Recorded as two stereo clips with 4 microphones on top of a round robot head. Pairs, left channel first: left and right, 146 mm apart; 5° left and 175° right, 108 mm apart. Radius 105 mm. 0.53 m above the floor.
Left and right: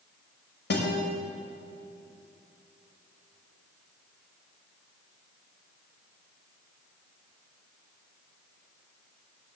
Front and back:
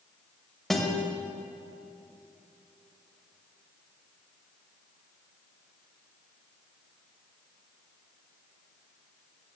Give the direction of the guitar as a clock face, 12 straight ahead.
9 o'clock.